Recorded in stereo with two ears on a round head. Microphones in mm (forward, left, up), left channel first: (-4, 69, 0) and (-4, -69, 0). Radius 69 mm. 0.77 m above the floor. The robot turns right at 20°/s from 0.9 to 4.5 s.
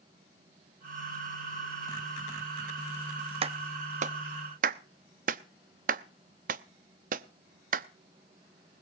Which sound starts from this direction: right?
A clap, at 3.4 s.